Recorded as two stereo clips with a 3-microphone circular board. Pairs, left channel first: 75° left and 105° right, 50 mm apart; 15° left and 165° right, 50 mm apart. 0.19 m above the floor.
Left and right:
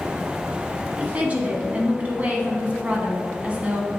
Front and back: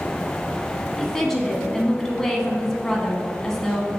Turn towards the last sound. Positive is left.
turn(degrees=-65)